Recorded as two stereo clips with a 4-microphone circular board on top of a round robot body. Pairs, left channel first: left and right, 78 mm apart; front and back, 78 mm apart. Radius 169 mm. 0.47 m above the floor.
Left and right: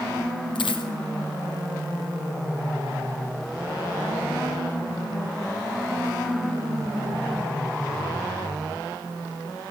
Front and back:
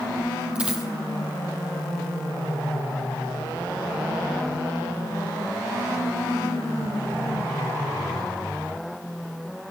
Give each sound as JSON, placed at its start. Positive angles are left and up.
{"t": 0.6, "sound": "a dropped coin", "azimuth_deg": 100, "distance_m": 1.2}